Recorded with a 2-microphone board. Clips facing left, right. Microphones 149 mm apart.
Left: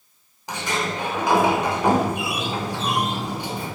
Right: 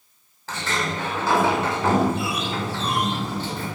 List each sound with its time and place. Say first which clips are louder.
0.5 s a sliding door: left 1 dB; 15° left (ahead or behind), 6 m